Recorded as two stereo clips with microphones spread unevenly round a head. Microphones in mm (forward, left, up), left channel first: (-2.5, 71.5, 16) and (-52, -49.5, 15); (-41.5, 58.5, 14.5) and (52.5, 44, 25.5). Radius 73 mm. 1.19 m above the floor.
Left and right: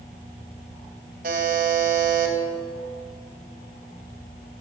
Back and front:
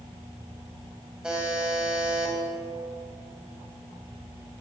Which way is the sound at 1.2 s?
90° right.